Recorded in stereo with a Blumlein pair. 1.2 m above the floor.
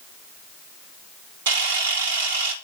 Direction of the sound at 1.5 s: 60° right.